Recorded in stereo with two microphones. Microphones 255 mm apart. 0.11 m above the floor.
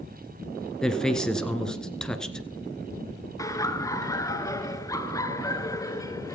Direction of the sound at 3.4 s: 15° left (ahead or behind).